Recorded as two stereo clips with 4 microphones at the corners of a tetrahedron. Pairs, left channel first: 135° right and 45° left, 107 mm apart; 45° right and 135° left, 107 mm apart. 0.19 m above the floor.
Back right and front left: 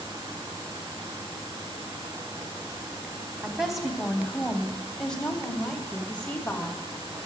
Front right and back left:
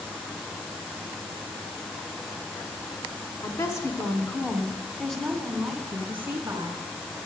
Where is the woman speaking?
40° right, 1.8 m; by 6.8 s 165° left, 1.7 m.